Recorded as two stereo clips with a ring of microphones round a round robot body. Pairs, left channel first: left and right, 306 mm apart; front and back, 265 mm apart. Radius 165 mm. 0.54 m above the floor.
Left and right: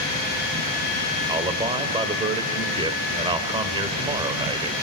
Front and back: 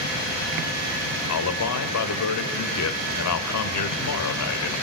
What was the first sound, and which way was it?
A man speaking, 15° right.